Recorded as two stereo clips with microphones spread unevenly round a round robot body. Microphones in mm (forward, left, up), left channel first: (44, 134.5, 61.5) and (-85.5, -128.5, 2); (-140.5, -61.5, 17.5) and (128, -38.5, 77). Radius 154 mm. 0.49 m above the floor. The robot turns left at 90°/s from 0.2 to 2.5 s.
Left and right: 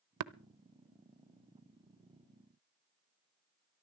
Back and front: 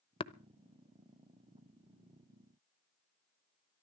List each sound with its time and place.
0.2 s tapping: 105° right, 0.8 m; by 0.3 s 115° right, 0.8 m